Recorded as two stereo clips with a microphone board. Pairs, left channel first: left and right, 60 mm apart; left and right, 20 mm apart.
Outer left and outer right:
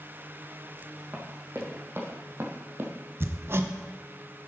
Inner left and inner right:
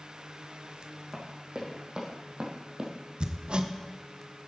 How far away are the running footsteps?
About 3.5 m.